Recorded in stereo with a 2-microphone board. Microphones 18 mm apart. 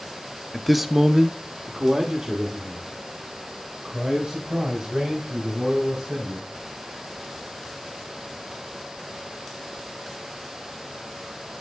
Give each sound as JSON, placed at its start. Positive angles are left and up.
{"t": 0.5, "sound": "a man speaking", "side_deg": 20, "distance_m": 0.5}